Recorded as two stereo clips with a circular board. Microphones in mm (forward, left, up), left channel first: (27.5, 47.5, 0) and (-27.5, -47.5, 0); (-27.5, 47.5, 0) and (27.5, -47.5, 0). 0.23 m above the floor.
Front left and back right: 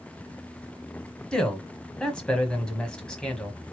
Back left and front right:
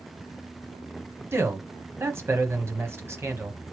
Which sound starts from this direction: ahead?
A man speaking, at 1.3 s.